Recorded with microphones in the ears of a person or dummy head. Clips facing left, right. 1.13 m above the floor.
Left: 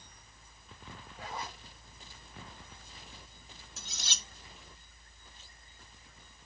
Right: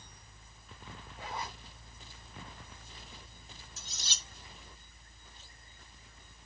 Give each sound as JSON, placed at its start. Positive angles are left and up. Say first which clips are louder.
{"t": 1.2, "sound": "a zipper", "louder": "right 1 dB", "side_deg": -5, "distance_m": 1.6}
{"t": 3.8, "sound": "cutlery clinking", "louder": "left 5 dB", "side_deg": 50, "distance_m": 0.6}